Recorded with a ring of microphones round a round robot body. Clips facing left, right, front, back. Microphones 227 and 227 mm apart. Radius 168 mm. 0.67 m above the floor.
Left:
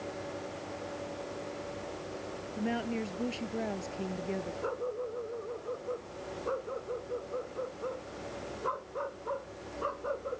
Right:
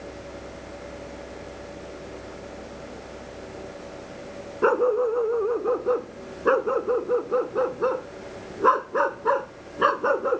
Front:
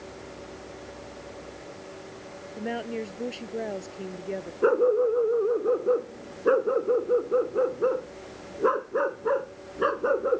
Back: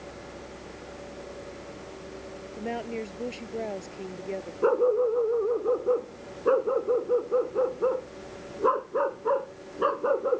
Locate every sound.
2.6 s a woman speaking: 85° left
4.6 s a dog barking: 80° right